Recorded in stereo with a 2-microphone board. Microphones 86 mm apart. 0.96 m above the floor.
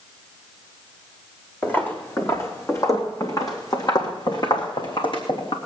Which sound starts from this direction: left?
Footsteps, at 1.6 s.